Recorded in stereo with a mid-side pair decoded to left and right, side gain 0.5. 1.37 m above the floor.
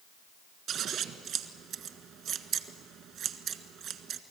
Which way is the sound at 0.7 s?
60° right.